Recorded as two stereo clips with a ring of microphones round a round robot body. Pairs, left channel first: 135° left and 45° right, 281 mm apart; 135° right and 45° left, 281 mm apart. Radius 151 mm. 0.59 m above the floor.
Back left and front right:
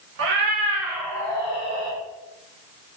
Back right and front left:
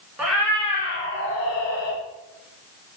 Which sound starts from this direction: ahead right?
A cat meowing, at 0.2 s.